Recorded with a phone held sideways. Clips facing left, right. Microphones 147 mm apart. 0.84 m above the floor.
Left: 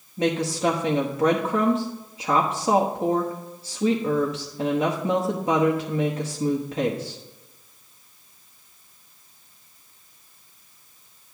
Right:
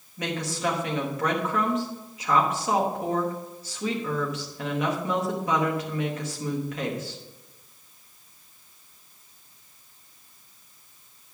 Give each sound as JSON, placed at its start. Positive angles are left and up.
{"t": 0.2, "sound": "a woman speaking", "side_deg": 30, "distance_m": 1.0}